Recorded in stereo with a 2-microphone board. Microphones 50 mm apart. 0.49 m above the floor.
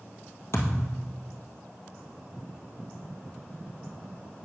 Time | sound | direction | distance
0.5 | a thud | 60° left (ahead or behind) | 2.0 m